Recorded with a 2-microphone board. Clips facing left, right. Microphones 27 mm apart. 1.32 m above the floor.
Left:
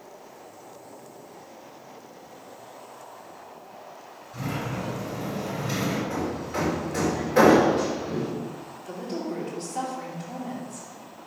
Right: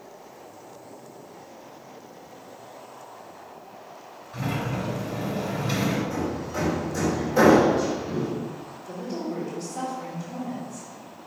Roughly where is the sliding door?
Right.